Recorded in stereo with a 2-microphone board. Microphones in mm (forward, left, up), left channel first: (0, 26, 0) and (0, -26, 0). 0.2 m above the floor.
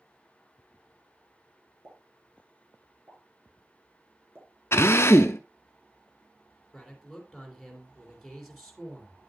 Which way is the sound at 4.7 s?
50° left (ahead or behind).